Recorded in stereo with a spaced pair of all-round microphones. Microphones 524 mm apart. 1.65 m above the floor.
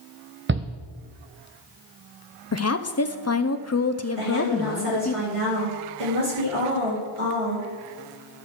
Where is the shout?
25° right (ahead or behind), 0.5 m.